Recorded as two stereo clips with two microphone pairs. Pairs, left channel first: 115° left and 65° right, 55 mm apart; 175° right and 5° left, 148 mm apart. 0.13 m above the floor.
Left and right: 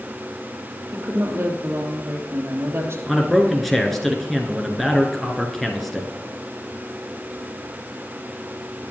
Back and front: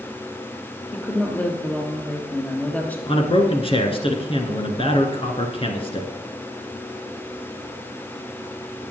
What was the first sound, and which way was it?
A woman speaking, 95° right.